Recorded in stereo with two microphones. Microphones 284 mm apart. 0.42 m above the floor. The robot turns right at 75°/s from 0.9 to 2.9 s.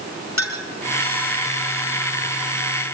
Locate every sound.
0.4 s a clink: 75° left (ahead or behind), 4 m